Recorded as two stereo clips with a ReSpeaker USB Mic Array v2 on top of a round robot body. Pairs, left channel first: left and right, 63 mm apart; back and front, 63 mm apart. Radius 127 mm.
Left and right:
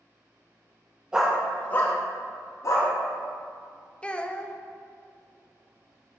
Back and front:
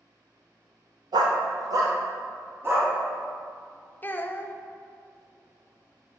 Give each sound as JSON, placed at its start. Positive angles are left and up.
{"t": 1.1, "sound": "a dog barking", "azimuth_deg": -10, "distance_m": 0.8}
{"t": 4.0, "sound": "a child speaking", "azimuth_deg": 150, "distance_m": 0.7}